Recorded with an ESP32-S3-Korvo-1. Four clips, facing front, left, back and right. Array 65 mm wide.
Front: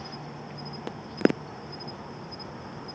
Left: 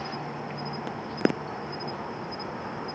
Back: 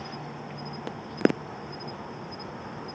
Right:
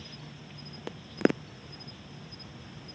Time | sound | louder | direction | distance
0.0 | an insect | left 14 dB, back 2 dB | 95° left | ?